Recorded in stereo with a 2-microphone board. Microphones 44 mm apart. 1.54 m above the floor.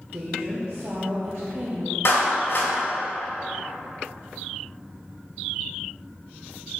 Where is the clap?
65° left (ahead or behind), 1.8 m.